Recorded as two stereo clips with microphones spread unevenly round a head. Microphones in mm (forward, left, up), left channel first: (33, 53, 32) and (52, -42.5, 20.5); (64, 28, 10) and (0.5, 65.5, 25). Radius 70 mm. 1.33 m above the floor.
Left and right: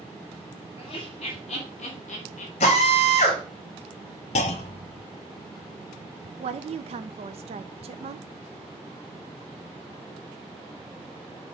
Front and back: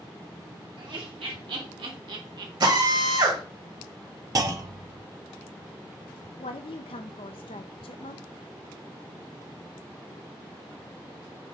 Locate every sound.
0.8 s laughter: 155° left, 2.5 m; by 2.5 s 130° left, 1.9 m
2.6 s a drill: 135° left, 3 m
4.3 s a clunk: 110° left, 1.0 m
6.4 s a woman speaking: 60° right, 0.5 m